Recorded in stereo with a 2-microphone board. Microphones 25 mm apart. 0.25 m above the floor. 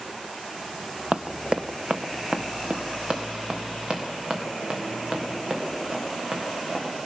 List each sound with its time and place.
1.1 s running footsteps: 55° right (ahead or behind), 0.5 m; by 6.9 s 45° right (ahead or behind), 5 m